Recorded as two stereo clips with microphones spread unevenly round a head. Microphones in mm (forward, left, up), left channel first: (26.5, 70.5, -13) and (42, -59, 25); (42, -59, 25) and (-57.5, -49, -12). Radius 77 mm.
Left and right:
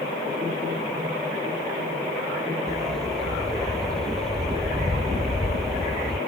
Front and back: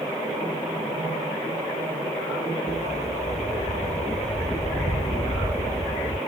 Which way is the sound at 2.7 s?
10° left.